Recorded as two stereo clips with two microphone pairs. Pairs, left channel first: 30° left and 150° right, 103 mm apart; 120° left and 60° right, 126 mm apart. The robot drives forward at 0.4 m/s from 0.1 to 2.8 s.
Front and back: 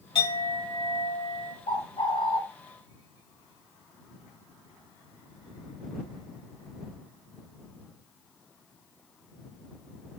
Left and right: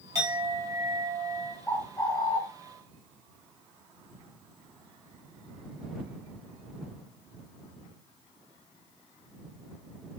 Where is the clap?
No clap in this recording.